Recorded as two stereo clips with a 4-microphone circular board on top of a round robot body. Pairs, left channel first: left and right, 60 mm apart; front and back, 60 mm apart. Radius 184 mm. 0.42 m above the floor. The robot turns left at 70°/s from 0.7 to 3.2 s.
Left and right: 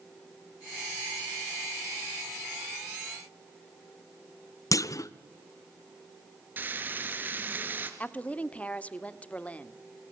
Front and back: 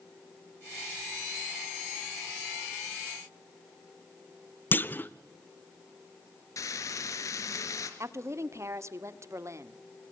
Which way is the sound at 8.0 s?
155° left.